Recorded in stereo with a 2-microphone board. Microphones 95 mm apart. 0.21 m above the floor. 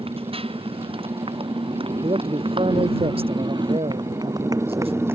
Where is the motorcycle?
80° right; by 5.2 s 25° right (ahead or behind).